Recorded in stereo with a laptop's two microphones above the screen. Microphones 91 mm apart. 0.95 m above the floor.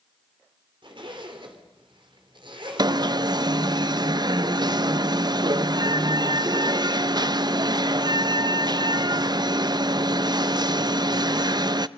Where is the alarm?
50° right (ahead or behind), 0.5 m.